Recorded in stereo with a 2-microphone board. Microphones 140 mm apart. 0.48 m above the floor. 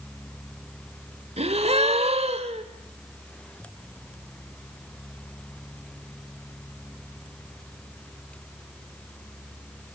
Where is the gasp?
50° right (ahead or behind), 1.8 m.